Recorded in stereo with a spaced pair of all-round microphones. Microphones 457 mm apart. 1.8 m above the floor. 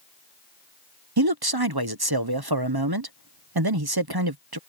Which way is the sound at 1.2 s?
55° right (ahead or behind).